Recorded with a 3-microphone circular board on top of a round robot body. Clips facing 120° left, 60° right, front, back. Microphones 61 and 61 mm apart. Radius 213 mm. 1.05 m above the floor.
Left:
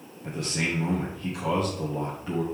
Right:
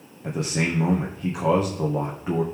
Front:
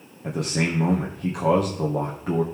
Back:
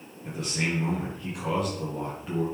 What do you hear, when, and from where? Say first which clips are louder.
0.2 s a man speaking: right 4 dB, front 5 dB; 10° right, 1.6 m